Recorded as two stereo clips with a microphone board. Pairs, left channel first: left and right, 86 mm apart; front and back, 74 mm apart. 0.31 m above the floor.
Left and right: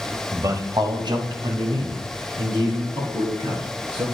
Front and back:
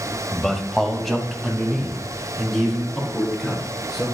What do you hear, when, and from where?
0.3 s a man speaking: 80° right, 1.0 m; by 4.0 s 90° right, 4.5 m